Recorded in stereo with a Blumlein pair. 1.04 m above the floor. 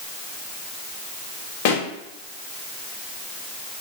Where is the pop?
45° left, 1.3 m.